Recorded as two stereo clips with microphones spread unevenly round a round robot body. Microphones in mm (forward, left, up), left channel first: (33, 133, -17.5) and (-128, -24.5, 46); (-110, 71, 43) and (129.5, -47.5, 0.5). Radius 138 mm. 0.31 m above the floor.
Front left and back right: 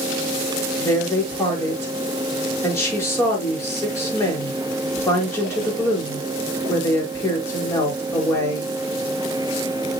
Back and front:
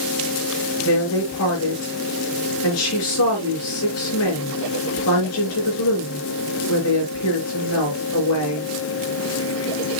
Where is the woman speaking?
120° left, 5.5 m.